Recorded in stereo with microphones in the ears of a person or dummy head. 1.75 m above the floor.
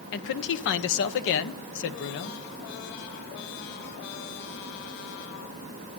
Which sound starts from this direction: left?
A man speaking, at 0.1 s.